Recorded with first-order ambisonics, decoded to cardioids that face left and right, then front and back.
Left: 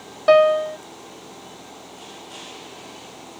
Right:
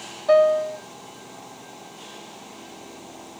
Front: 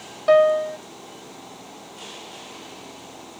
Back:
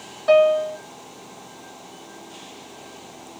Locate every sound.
0.3 s a piano: 80° left, 0.7 m